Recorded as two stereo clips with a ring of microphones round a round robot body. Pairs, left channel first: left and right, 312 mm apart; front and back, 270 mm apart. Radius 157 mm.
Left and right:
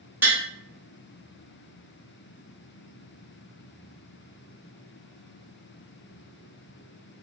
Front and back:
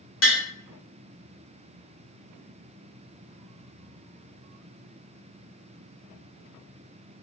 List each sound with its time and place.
0.2 s tapping: 10° right, 1.2 m